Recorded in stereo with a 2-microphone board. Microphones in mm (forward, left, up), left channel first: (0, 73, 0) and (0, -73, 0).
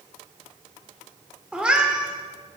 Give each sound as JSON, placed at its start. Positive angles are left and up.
{"t": 1.5, "sound": "a cat meowing", "side_deg": -5, "distance_m": 1.7}